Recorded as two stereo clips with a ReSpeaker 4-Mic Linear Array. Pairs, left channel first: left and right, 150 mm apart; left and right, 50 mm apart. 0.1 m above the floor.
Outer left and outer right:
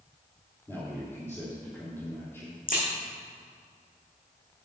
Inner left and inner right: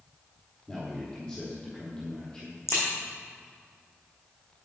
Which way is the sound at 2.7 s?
65° left (ahead or behind).